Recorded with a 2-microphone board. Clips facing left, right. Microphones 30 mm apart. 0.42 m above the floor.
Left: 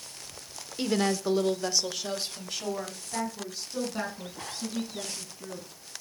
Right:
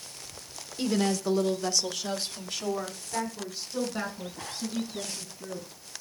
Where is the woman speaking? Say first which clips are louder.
Even; 20° left (ahead or behind), 0.9 m; by 5.7 s 5° left (ahead or behind), 5.5 m.